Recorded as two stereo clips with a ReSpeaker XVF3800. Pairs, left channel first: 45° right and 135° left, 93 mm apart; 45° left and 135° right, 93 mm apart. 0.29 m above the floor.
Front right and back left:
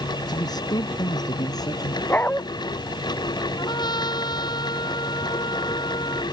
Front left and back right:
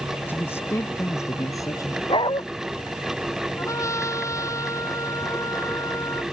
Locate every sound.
0.3 s a man speaking: 20° right; by 2.0 s 5° right
2.1 s a dog barking: 25° left
3.6 s a trumpet: 10° right